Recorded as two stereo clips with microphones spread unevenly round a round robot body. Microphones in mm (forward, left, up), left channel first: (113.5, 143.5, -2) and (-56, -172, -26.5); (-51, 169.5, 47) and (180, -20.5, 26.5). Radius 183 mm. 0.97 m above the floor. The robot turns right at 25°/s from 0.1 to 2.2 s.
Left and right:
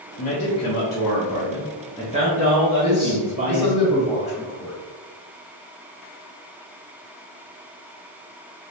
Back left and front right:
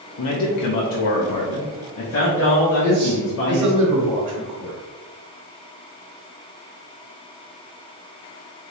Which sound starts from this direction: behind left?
A man speaking, at 0.2 s.